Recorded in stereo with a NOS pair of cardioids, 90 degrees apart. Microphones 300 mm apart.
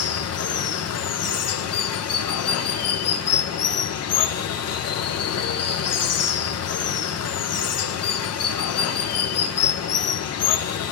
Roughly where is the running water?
Ahead left.